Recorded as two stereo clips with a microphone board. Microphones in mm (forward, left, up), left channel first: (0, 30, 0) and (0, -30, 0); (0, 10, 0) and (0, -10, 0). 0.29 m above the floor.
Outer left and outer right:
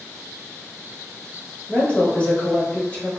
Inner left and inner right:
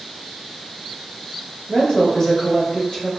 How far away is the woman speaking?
About 1.1 m.